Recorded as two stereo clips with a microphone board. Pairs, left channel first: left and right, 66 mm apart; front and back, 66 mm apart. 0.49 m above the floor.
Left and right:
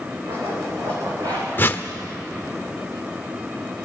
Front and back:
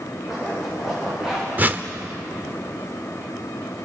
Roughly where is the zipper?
Right.